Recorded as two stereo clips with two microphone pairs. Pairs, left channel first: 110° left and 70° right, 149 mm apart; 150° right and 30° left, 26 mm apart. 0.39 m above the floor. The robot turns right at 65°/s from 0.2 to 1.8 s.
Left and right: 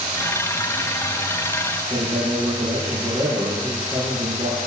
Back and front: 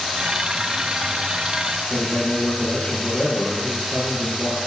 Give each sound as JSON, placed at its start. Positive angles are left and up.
{"t": 1.9, "sound": "a man speaking", "azimuth_deg": -125, "distance_m": 7.5}